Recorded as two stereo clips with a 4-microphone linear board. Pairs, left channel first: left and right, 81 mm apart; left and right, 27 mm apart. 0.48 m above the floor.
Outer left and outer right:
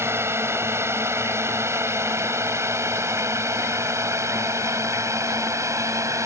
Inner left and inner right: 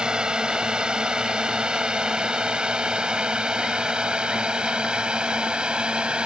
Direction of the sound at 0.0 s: 30° right (ahead or behind).